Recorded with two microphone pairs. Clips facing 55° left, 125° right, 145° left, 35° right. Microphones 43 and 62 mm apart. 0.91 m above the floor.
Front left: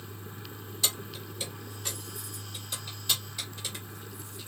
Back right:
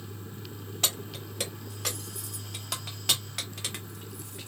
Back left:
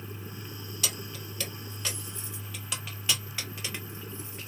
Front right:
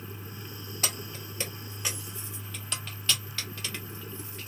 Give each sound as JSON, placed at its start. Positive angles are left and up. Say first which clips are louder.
{"t": 0.8, "sound": "keys jangling", "louder": "back right 1 dB, front right 1 dB", "azimuth_deg": -85, "distance_m": 1.2}